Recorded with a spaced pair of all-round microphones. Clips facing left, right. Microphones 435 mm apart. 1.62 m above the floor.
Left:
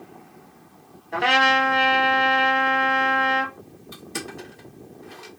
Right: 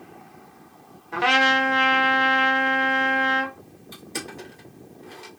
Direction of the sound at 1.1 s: 20° right (ahead or behind).